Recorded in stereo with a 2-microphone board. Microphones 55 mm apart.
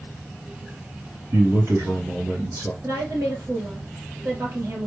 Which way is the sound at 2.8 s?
60° right (ahead or behind).